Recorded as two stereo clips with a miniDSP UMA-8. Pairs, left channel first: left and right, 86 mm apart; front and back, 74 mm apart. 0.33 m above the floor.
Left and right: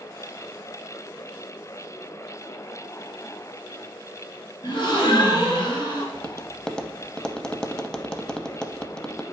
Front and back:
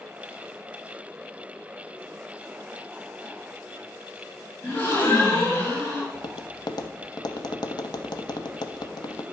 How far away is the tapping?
About 0.6 m.